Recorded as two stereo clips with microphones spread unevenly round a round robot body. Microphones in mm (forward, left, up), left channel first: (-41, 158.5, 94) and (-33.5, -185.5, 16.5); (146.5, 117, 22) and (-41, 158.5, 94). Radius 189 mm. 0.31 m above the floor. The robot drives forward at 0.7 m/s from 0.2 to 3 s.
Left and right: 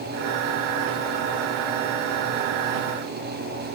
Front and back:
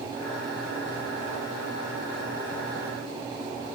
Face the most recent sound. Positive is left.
No sound to turn to.